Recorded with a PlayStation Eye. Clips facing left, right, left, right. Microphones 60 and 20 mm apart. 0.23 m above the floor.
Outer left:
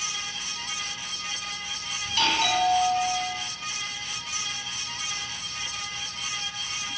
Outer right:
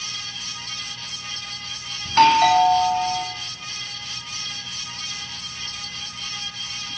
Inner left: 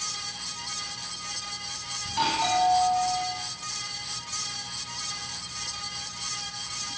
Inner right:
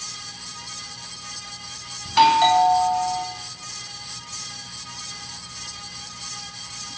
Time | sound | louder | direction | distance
2.0 | a doorbell | outer right 11 dB, inner right 10 dB | 45° right (ahead or behind) | 2 m